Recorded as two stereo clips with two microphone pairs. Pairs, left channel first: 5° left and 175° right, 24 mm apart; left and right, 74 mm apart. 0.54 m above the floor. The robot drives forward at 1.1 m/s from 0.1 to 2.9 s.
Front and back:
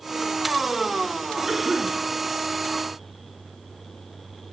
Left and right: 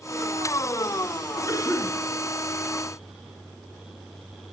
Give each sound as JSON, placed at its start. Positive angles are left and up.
{"t": 1.5, "sound": "a cough", "azimuth_deg": 120, "distance_m": 5.5}